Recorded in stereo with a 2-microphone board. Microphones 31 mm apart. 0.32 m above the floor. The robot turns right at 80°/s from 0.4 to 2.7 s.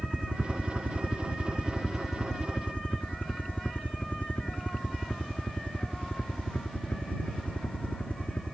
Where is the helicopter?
40° right (ahead or behind); by 8.5 s 60° left (ahead or behind).